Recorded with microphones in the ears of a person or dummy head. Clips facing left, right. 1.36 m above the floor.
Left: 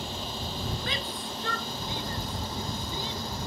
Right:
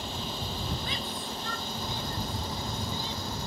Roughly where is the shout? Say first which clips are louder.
Left 1 dB; left.